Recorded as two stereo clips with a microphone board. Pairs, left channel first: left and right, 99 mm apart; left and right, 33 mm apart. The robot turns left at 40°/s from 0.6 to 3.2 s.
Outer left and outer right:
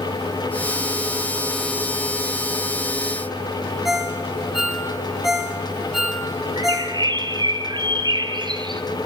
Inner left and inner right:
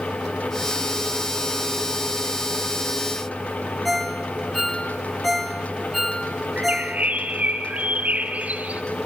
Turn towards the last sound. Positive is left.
turn(degrees=-50)  # may be behind; listen again after turning